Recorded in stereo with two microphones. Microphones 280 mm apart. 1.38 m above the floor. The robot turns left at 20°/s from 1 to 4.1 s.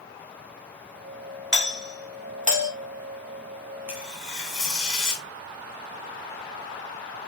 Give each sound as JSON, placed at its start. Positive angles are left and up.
{"t": 1.5, "sound": "a doorbell", "side_deg": -40, "distance_m": 1.3}
{"t": 3.9, "sound": "tearing paper", "side_deg": -5, "distance_m": 1.9}